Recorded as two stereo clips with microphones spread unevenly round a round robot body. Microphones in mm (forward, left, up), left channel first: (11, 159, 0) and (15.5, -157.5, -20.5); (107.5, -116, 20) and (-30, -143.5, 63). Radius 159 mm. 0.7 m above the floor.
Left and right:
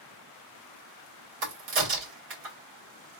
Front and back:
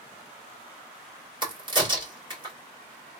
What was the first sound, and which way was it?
A crack, 110° right.